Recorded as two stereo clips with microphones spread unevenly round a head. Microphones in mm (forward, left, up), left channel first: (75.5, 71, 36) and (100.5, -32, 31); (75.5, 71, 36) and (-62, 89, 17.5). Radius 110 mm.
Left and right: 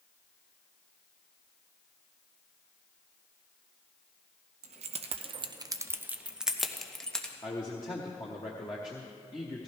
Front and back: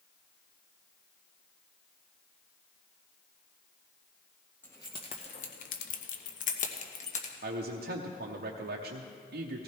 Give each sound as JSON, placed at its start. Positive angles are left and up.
{"t": 4.6, "sound": "keys jangling", "azimuth_deg": -85, "distance_m": 0.9}
{"t": 7.4, "sound": "a man speaking", "azimuth_deg": 170, "distance_m": 0.8}